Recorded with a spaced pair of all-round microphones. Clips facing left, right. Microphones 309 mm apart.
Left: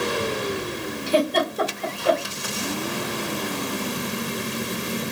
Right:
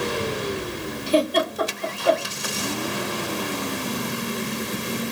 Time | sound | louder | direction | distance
1.1 | a giggle | right 1 dB | 30° left (ahead or behind) | 1.8 m